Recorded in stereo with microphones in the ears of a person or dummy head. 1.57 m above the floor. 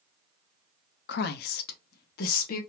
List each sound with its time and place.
1.1 s a woman speaking: 65° left (ahead or behind), 0.5 m; by 2.6 s 55° left (ahead or behind), 1.3 m